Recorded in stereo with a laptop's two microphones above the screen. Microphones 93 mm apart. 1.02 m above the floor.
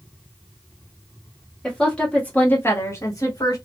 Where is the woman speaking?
5° left (ahead or behind), 1.5 m; by 3.6 s 45° left (ahead or behind), 1.6 m.